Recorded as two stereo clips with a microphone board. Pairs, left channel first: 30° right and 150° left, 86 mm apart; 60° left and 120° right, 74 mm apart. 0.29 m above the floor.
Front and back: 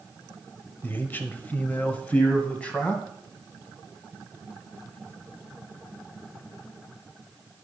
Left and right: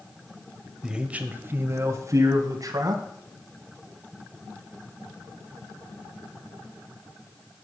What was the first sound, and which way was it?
A man speaking, 55° right.